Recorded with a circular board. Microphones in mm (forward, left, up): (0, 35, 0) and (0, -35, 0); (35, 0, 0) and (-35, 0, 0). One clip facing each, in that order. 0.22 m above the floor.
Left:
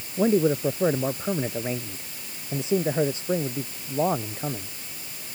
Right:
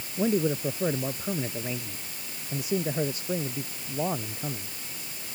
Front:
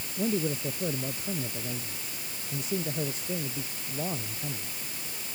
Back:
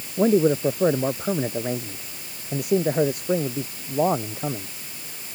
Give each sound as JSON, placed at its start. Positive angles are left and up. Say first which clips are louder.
{"t": 0.2, "sound": "a man speaking", "louder": "left 5 dB, back 11 dB", "azimuth_deg": 155}